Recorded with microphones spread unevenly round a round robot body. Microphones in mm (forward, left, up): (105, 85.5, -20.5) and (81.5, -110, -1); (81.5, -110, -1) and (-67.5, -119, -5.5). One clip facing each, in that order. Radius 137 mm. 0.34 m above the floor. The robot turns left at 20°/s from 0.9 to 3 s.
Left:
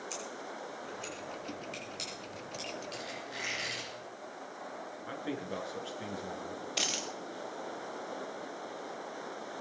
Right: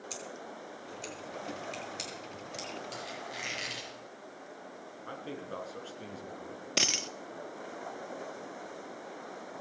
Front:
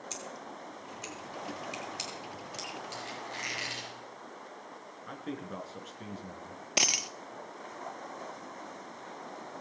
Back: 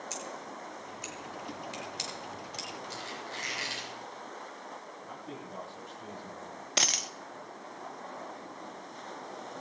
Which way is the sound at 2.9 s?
65° right.